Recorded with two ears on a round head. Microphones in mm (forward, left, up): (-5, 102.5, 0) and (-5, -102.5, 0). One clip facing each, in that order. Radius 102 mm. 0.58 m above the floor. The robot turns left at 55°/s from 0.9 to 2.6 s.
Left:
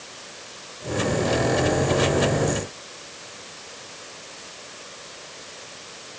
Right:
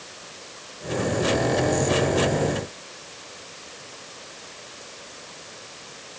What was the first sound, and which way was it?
Only background noise.